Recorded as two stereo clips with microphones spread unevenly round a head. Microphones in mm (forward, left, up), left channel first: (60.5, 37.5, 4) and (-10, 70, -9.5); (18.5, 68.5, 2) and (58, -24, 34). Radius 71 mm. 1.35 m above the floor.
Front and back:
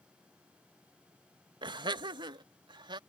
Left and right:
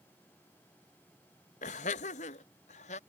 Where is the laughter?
130° left; by 3.0 s 135° left.